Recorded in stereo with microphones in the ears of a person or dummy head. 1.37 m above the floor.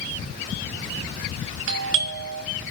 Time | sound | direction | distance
1.7 | a doorbell | 65° right (ahead or behind) | 0.9 m